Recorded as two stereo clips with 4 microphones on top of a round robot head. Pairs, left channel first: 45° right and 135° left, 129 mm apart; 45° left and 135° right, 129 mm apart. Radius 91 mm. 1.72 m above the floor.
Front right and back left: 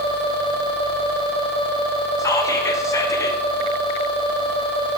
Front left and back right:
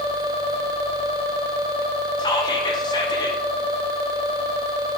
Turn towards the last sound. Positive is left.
turn(degrees=10)